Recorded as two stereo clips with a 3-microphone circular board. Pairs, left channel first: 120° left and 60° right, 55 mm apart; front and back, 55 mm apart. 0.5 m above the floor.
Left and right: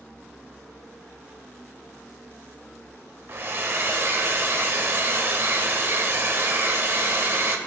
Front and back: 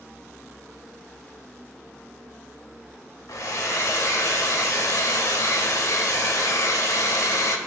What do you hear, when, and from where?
3.3 s a hair dryer: 15° right, 0.7 m